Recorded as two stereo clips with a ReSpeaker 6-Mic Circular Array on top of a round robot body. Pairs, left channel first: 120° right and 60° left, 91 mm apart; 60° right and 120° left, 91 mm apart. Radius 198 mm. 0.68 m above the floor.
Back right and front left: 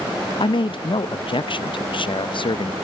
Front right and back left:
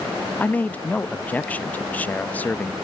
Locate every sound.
0.4 s a man speaking: 130° right